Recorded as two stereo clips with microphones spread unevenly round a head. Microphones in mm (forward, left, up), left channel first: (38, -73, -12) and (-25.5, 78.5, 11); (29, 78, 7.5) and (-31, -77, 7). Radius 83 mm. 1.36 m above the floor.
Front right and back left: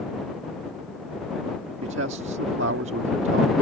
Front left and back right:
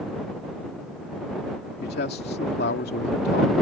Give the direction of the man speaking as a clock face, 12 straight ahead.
9 o'clock.